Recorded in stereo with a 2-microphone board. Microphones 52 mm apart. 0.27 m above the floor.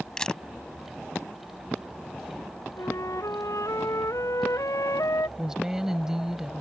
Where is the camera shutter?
15° left (ahead or behind).